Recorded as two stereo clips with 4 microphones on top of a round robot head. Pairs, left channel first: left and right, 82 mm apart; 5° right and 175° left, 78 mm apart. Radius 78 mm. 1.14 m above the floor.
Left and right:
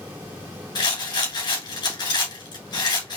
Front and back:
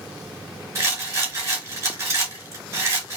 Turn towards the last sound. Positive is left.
turn(degrees=120)